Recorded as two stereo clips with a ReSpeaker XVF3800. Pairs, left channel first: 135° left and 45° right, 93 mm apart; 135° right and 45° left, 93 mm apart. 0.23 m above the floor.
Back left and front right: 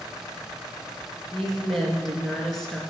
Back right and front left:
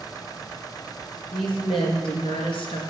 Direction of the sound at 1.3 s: 140° right.